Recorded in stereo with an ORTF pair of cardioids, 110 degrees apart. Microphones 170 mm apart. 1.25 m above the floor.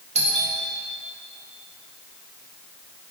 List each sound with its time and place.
0.1 s a doorbell: 45° right, 1.8 m